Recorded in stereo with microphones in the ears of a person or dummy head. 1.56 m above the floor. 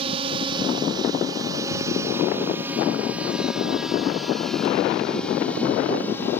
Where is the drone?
35° right (ahead or behind); by 6.4 s 10° left (ahead or behind).